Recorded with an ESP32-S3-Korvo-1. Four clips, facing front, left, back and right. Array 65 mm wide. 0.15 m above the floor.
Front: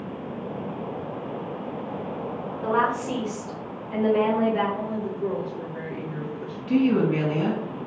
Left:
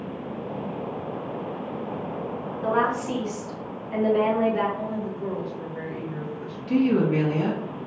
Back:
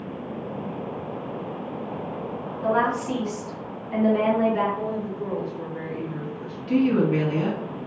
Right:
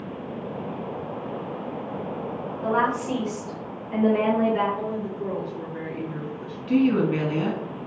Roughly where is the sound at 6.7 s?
Right.